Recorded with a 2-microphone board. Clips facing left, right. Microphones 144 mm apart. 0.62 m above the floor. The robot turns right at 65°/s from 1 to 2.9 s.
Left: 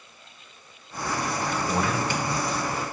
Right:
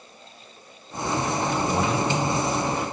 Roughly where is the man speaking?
Behind.